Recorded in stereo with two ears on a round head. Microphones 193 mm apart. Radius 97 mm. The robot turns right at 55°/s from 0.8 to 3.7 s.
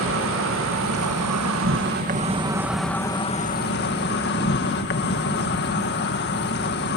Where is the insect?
110° right; by 7.0 s 50° left.